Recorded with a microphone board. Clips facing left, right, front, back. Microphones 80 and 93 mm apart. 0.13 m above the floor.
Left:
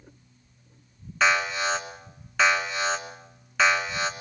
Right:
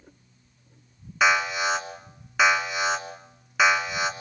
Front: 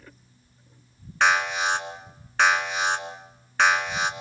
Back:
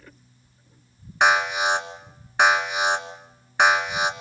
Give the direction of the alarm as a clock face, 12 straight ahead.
5 o'clock.